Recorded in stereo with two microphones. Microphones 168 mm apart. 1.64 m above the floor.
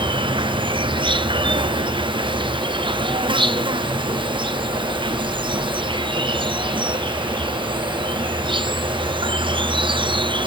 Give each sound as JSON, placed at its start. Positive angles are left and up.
{"t": 0.0, "sound": "an insect", "side_deg": -30}